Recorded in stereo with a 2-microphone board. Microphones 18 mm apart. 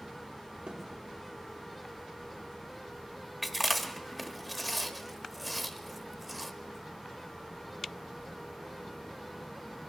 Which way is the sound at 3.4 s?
Centre (ahead or behind).